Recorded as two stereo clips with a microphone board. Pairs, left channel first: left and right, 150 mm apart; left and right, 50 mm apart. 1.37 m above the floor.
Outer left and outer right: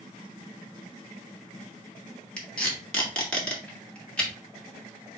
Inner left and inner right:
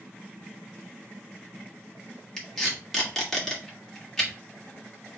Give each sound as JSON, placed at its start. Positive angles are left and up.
{"t": 2.4, "sound": "tape being pulled", "side_deg": 10, "distance_m": 1.5}